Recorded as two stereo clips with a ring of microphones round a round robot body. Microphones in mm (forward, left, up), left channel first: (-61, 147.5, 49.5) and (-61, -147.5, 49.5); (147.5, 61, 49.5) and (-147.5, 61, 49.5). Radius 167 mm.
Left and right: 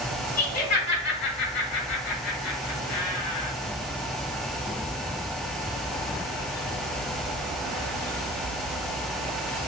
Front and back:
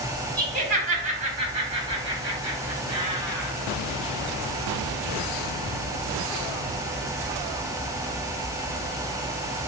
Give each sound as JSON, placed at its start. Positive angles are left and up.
{"t": 0.4, "sound": "laughter", "azimuth_deg": 120, "distance_m": 1.7}